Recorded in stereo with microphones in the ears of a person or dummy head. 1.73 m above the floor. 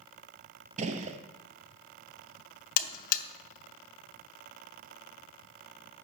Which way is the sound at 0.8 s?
40° right (ahead or behind).